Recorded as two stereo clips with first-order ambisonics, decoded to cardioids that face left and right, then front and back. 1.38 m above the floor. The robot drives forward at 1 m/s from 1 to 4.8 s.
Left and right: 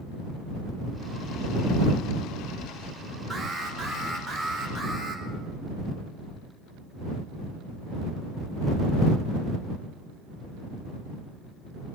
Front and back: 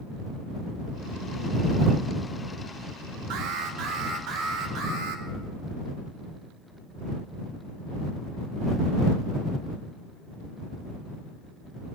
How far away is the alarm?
About 2.5 m.